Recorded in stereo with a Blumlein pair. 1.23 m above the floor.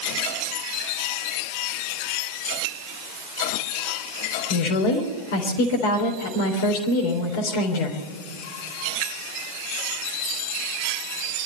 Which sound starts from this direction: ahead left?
A woman speaking, at 4.5 s.